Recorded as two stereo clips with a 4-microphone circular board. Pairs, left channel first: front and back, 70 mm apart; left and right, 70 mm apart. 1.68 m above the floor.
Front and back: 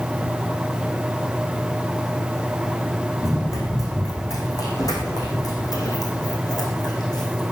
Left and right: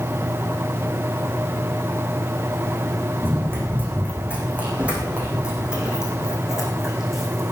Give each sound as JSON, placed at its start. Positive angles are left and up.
{"t": 3.2, "sound": "running footsteps", "azimuth_deg": -35, "distance_m": 4.5}